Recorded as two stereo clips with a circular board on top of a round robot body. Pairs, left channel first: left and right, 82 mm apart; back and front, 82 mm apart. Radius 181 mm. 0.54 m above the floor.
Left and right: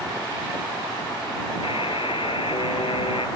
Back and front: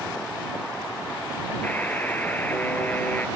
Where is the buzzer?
110° left.